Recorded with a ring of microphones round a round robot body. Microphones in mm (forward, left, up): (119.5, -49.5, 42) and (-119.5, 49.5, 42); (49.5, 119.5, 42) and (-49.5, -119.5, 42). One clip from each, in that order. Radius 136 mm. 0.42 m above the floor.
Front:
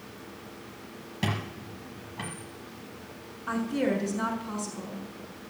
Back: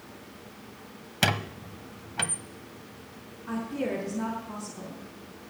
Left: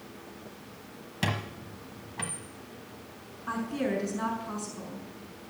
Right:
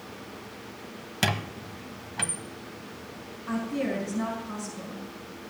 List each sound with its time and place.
1.2 s a squeak: 175° right, 0.9 m
3.5 s a woman speaking: 10° left, 4.5 m